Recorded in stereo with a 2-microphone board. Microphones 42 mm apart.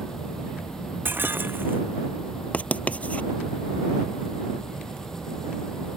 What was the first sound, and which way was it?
An insect, 10° left (ahead or behind).